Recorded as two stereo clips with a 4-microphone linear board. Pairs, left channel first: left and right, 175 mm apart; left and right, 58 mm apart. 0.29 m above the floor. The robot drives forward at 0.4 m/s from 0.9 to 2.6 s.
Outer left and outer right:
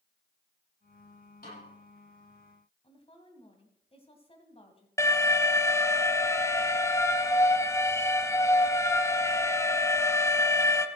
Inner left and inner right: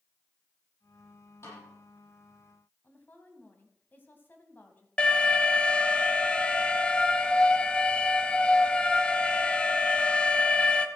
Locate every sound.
1.4 s a snare drum: 55° left (ahead or behind), 7.5 m
2.8 s a woman speaking: 35° left (ahead or behind), 2 m
5.0 s an alarm: 15° left (ahead or behind), 0.9 m